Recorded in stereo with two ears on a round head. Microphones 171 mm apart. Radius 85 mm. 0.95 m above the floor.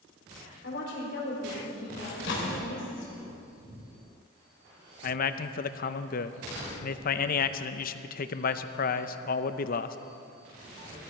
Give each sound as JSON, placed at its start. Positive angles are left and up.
{"t": 0.6, "sound": "a woman speaking", "side_deg": 65, "distance_m": 3.5}
{"t": 2.1, "sound": "a microwave", "side_deg": 70, "distance_m": 3.0}
{"t": 5.0, "sound": "a man speaking", "side_deg": 50, "distance_m": 0.6}